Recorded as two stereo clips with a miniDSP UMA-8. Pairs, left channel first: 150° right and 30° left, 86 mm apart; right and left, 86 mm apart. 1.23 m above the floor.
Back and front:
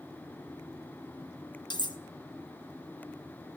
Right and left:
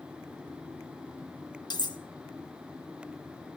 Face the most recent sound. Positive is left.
turn(degrees=-120)